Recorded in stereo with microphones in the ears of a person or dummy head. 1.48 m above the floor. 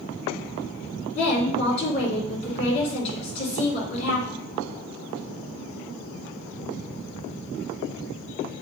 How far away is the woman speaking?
About 4 m.